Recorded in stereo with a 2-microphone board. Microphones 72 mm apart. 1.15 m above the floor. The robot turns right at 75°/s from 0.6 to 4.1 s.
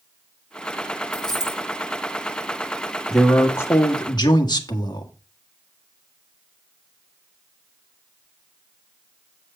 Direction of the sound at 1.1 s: 165° left.